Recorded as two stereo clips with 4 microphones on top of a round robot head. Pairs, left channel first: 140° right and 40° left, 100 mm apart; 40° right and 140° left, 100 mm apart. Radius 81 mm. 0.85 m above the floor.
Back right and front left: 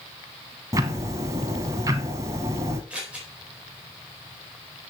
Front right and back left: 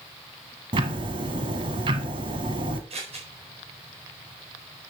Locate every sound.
0.7 s ticking: 95° left, 1.1 m
2.9 s scissors: 115° left, 4.5 m